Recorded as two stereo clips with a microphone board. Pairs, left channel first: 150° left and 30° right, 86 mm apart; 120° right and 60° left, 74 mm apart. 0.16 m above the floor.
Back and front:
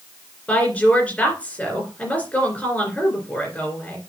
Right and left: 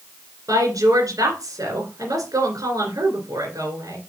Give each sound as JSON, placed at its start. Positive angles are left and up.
{"t": 0.5, "sound": "a woman speaking", "azimuth_deg": 80, "distance_m": 2.5}